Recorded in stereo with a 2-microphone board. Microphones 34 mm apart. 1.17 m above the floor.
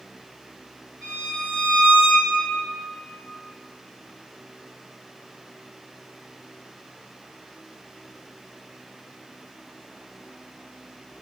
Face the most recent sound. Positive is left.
turn(degrees=-20)  # may be behind; listen again after turning